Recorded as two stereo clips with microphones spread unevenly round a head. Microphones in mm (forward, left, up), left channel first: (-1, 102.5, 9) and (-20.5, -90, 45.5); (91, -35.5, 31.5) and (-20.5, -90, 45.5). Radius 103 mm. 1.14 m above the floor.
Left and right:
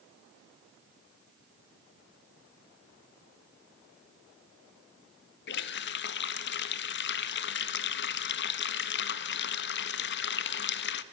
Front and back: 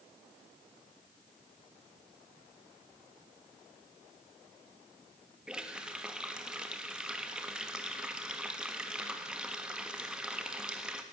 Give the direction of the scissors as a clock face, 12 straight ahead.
No scissors in this recording.